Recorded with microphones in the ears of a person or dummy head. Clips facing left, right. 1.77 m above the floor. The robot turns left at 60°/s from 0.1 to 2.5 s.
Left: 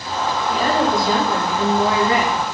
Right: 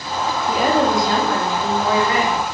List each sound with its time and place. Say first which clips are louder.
0.5 s a woman speaking: right 2 dB; 150° right, 3.5 m; by 2.3 s 100° left, 3.5 m